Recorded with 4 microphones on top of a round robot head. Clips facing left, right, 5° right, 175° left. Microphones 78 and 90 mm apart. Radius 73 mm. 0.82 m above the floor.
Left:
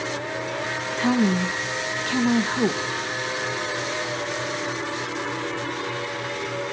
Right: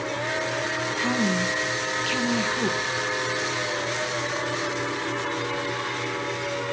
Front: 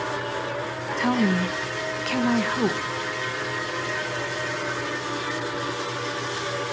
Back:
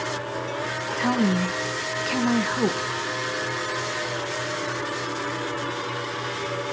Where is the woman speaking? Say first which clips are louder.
Left 5 dB, even; 90° left, 0.7 m.